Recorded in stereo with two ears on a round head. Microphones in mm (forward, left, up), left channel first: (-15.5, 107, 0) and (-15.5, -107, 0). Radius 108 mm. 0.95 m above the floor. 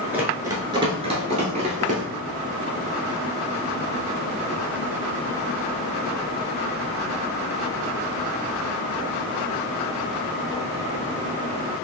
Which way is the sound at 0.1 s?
10° right (ahead or behind).